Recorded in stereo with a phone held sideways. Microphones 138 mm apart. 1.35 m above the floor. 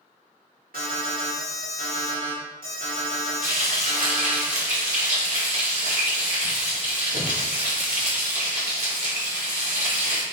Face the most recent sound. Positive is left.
turn(degrees=-60)  # may be behind; listen again after turning